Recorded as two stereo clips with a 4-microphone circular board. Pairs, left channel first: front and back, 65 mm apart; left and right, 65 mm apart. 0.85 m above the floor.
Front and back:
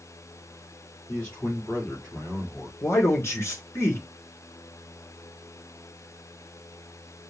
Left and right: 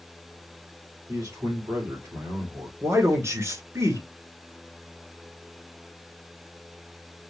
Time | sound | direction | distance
1.1 | a man speaking | 70° right | 2.5 m
2.8 | a man speaking | 50° right | 2.5 m